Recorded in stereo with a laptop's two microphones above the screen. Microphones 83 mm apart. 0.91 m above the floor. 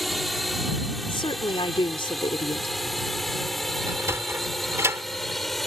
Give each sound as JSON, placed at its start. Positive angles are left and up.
{"t": 0.0, "sound": "a drone", "side_deg": 0}
{"t": 1.1, "sound": "a woman speaking", "side_deg": 80}
{"t": 3.9, "sound": "a sliding door", "side_deg": -35}